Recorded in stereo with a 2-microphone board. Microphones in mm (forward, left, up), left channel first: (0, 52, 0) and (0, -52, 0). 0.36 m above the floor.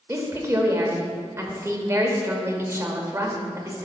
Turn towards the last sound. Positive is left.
turn(degrees=-25)  # may be behind; listen again after turning